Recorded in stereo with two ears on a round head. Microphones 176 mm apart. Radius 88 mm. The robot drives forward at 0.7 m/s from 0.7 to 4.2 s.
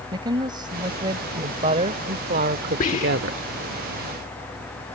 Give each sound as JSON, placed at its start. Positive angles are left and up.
{"t": 0.1, "sound": "a woman speaking", "side_deg": -25}
{"t": 2.8, "sound": "whispering", "side_deg": 40}